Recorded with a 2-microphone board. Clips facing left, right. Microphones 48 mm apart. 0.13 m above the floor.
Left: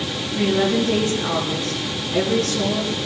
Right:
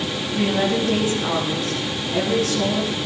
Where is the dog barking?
I don't hear a dog barking.